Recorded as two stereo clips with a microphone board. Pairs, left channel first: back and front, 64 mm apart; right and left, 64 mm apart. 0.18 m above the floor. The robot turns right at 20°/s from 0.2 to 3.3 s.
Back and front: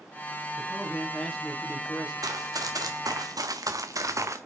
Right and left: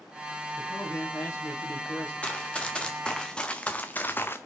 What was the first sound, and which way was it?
A man speaking, 125° right.